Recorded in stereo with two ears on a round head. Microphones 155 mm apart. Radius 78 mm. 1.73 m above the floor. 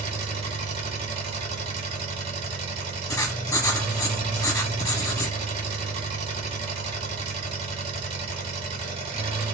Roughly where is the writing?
Centre.